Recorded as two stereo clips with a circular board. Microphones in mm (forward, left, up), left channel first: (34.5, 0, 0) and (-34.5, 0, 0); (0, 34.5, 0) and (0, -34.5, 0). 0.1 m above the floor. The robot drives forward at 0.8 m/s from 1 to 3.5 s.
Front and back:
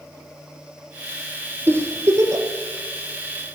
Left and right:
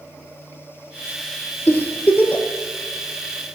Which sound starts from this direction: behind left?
A giggle, at 1.7 s.